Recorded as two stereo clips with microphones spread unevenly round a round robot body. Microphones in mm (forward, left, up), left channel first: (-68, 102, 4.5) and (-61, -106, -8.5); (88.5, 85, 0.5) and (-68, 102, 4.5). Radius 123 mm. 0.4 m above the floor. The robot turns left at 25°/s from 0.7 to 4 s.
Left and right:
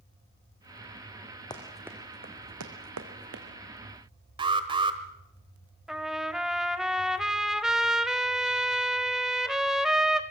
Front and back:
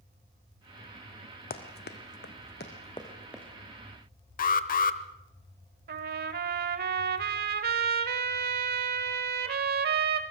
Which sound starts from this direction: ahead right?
An alarm, at 4.4 s.